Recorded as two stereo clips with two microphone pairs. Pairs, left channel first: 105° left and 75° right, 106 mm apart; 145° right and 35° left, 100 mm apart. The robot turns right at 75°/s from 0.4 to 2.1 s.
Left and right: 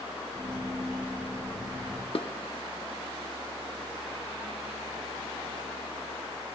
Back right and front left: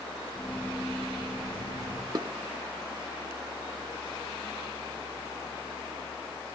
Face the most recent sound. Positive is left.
turn(degrees=80)